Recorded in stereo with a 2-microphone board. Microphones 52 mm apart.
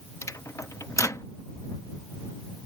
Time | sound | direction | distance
0.2 | a microwave | 80° left | ?